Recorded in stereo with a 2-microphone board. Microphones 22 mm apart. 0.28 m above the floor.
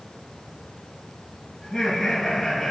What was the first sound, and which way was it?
Laughter, 20° left (ahead or behind).